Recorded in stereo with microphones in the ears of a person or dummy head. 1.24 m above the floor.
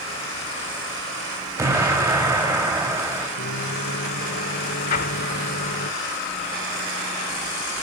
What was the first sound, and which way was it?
An explosion, 10° right (ahead or behind).